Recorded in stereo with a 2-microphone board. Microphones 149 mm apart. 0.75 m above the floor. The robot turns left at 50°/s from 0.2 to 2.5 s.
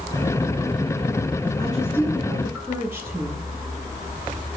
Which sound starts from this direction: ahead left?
A woman speaking, at 1.6 s.